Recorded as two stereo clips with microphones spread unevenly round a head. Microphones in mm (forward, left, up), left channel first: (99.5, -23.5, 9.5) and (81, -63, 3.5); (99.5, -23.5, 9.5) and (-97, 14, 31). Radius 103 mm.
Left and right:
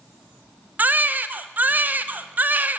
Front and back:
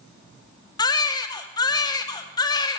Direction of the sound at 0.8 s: 75° right.